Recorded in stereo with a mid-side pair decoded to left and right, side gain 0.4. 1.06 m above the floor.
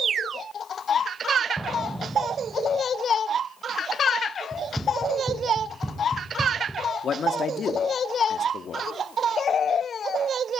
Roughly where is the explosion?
Ahead.